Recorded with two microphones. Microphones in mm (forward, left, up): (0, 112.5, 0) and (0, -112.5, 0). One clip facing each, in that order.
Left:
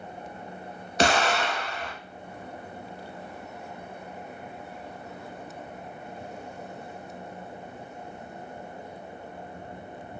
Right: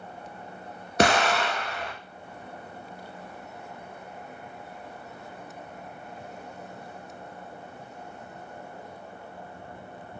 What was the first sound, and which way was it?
An explosion, 60° right (ahead or behind).